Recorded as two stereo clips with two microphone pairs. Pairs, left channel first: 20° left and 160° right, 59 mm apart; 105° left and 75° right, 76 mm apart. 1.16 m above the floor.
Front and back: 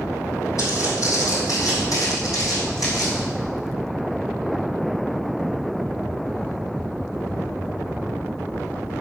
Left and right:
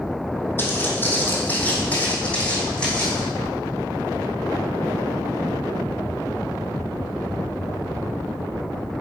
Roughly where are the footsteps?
Ahead left.